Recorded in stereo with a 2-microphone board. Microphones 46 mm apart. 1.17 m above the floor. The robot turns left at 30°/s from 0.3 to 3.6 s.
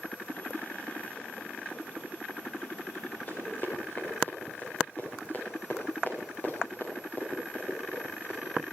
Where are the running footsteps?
30° left (ahead or behind), 7 m; by 8.5 s 35° left (ahead or behind), 11 m.